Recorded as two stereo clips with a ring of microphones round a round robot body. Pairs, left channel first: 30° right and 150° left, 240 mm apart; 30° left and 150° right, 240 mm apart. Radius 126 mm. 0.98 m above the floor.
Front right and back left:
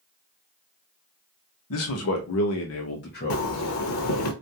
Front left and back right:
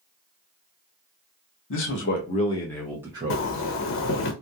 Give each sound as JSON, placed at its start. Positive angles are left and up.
{"t": 1.7, "sound": "a man speaking", "azimuth_deg": -5, "distance_m": 1.0}
{"t": 3.3, "sound": "a zipper", "azimuth_deg": -10, "distance_m": 0.7}